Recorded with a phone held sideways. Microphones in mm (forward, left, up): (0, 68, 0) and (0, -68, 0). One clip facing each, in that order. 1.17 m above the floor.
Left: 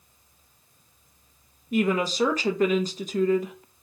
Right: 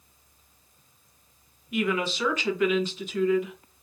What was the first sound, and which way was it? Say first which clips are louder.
A woman speaking: left 3 dB; 40° left (ahead or behind).